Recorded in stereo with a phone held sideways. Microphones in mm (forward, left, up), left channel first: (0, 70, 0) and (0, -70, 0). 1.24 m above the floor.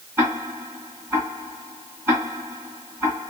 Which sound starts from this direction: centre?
Ticking, at 0.2 s.